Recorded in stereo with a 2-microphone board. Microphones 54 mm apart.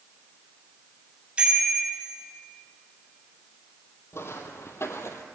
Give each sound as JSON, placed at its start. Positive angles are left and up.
{"t": 1.4, "sound": "a bicycle bell", "side_deg": -20, "distance_m": 6.0}
{"t": 4.1, "sound": "footsteps", "side_deg": 50, "distance_m": 2.5}